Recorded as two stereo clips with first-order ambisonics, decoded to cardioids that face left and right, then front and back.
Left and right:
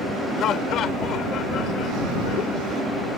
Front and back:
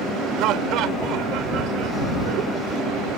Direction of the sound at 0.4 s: 145° left.